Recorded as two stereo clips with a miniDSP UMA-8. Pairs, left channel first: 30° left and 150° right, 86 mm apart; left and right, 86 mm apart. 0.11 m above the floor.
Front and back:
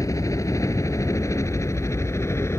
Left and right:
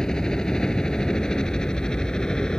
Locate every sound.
0.0 s a helicopter: 10° left; by 2.6 s 15° left